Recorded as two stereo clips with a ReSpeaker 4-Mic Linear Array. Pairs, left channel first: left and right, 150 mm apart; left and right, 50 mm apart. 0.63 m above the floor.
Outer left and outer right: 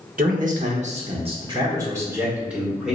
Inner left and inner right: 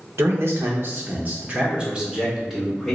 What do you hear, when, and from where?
0.2 s a man speaking: 65° right (ahead or behind), 1.2 m; by 3.0 s centre (ahead or behind), 1.7 m